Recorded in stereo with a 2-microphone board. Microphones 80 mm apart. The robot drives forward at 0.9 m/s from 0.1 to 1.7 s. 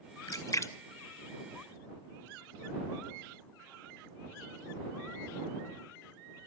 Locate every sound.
0.3 s a splash: 50° left (ahead or behind), 0.7 m; by 2.3 s 20° left (ahead or behind), 1.6 m